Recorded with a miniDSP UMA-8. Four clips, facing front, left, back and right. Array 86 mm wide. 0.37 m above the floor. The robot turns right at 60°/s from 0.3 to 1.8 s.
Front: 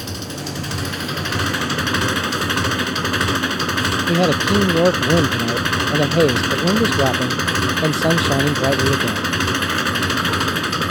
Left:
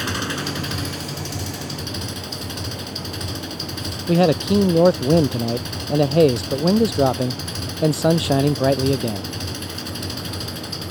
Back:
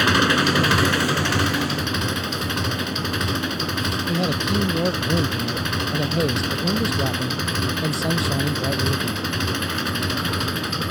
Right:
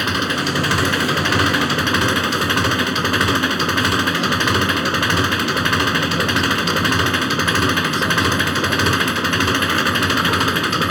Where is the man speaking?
55° left.